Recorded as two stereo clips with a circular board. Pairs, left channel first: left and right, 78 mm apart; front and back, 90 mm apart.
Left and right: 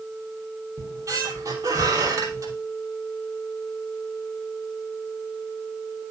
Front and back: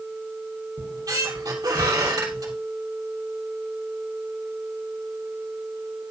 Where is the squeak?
130° right, 2.5 m.